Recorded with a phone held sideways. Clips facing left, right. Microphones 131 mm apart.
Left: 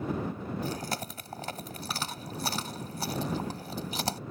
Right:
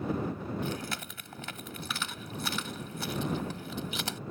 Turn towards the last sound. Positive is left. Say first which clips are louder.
# left 2 dB
turn(degrees=40)  # may be behind; listen again after turning